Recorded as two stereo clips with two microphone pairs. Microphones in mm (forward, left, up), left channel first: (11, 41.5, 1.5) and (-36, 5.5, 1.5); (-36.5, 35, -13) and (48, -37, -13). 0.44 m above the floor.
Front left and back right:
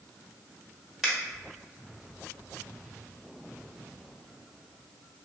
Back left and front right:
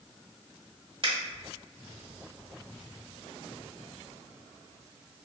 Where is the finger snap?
65° right, 1.0 m.